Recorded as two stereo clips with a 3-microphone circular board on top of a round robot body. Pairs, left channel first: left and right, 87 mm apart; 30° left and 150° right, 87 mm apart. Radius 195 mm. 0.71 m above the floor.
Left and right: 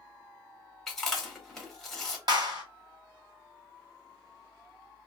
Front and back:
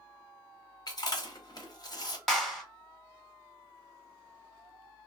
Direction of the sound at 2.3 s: 55° right.